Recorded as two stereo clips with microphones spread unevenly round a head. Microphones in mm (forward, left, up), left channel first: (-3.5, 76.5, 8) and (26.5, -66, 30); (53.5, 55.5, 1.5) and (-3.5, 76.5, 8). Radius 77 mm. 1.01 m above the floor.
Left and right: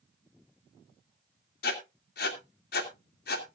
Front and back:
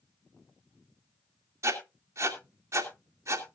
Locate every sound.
1.6 s writing: 120° left, 2.5 m